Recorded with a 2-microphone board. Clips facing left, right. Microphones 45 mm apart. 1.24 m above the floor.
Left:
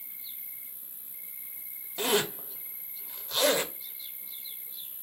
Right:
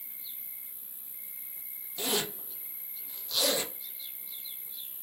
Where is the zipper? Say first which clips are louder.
Left 5 dB; 40° left (ahead or behind), 0.6 m.